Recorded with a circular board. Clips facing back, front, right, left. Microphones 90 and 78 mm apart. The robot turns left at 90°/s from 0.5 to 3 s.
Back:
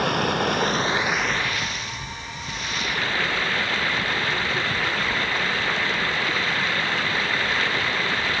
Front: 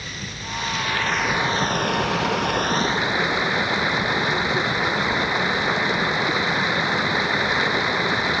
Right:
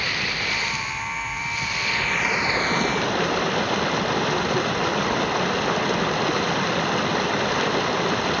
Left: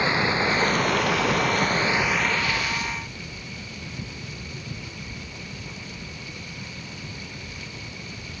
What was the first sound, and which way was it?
Running water, 155° left.